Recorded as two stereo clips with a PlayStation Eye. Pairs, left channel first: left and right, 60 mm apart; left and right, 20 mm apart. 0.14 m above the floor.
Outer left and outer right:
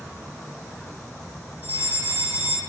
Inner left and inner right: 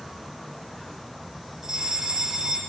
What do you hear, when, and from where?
0.0 s an insect: 60° left (ahead or behind), 7 m
1.6 s a fire alarm: 25° right (ahead or behind), 9 m